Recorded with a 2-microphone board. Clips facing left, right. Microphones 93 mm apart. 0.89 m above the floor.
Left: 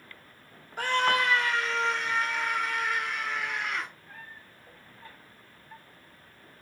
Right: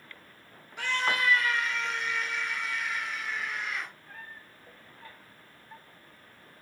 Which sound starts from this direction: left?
A scream, at 0.8 s.